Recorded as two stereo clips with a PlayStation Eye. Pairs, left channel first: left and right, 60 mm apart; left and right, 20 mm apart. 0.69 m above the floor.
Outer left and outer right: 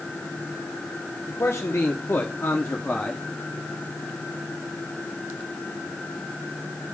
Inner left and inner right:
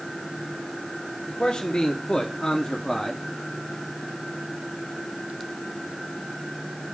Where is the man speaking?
55° left (ahead or behind), 1.7 m; by 3.2 s 10° left (ahead or behind), 1.1 m.